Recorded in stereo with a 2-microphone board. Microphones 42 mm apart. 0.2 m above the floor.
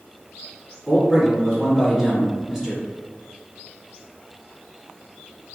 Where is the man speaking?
Centre (ahead or behind), 1.3 m.